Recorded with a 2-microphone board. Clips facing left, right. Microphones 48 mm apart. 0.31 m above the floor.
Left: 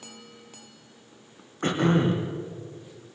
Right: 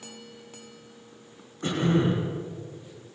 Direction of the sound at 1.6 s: 45° left (ahead or behind).